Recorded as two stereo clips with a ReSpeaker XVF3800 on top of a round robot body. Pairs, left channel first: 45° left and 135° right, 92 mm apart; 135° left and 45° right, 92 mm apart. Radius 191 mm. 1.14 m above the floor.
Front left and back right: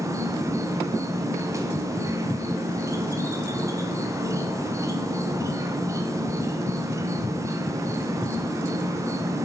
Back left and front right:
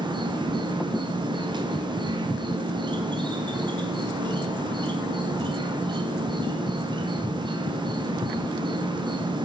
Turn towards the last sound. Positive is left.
turn(degrees=-80)